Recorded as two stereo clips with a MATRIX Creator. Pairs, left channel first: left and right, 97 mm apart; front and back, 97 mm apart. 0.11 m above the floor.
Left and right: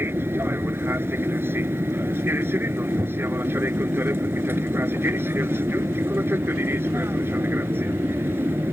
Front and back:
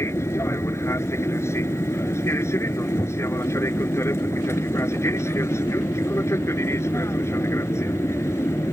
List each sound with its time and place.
0.0 s an aircraft: 40° right